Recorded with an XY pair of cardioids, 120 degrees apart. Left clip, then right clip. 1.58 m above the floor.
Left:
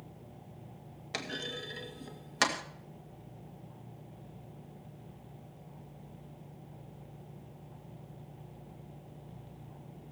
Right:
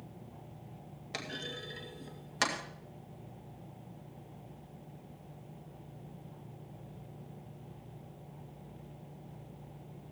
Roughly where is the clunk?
Ahead.